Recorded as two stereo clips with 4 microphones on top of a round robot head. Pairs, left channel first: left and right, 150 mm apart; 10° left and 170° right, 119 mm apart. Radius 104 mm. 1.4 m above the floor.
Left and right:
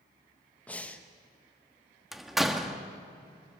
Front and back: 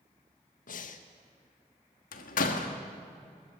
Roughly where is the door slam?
Ahead.